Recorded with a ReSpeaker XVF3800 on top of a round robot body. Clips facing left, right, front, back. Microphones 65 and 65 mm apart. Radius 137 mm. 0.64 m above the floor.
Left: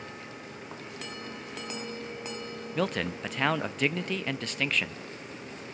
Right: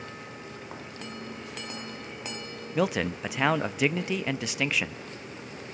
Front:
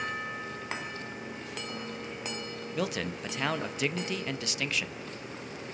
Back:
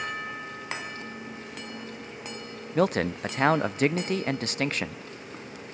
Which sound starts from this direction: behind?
A man speaking, at 2.8 s.